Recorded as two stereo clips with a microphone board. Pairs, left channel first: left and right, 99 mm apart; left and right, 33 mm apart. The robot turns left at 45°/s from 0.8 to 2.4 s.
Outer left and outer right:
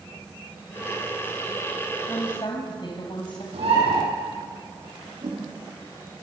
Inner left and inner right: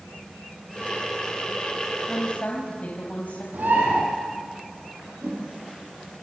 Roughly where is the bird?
Right.